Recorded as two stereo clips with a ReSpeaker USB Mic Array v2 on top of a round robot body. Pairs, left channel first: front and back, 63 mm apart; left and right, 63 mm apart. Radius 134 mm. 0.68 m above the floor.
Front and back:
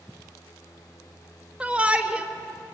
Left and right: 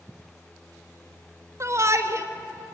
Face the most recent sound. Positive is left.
turn(degrees=-115)